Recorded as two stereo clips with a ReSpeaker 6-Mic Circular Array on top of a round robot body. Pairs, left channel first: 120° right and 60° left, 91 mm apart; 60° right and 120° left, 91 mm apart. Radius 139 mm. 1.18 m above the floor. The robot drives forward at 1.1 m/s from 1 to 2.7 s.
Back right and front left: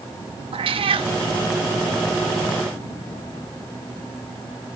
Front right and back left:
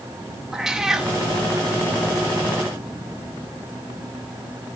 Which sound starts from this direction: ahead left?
A cat meowing, at 0.5 s.